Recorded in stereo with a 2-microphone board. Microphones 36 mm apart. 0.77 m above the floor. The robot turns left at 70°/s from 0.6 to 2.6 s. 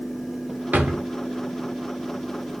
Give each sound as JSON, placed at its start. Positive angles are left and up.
{"t": 0.7, "sound": "a drawer", "side_deg": -60, "distance_m": 0.6}